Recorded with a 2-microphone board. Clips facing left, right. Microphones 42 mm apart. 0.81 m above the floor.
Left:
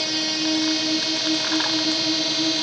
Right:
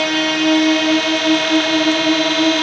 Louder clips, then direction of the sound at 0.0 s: Right 9 dB; 50° right (ahead or behind).